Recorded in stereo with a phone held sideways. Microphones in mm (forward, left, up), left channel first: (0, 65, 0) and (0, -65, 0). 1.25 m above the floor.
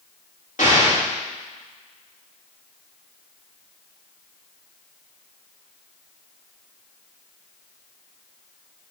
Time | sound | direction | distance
0.6 | an explosion | 75° left (ahead or behind) | 3 m